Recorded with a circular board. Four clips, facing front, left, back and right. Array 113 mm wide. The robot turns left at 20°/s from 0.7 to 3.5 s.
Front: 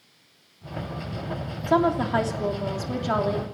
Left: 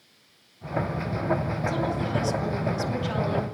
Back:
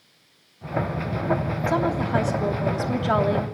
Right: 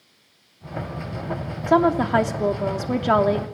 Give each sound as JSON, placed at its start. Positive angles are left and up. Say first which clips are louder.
{"t": 1.7, "sound": "a woman speaking", "louder": "right 12 dB, front 3 dB", "azimuth_deg": -75, "distance_m": 3.0}